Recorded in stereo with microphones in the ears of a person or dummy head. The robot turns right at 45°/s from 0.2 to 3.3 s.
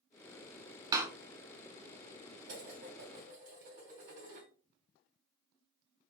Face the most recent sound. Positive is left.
turn(degrees=-45)